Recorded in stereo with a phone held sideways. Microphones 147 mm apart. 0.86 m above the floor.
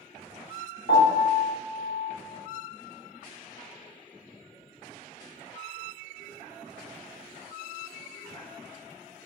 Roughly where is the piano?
Left.